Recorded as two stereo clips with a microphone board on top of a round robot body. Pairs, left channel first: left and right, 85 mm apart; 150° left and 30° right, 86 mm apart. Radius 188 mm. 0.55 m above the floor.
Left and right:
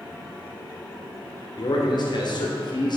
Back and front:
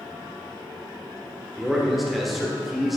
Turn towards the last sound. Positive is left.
turn(degrees=60)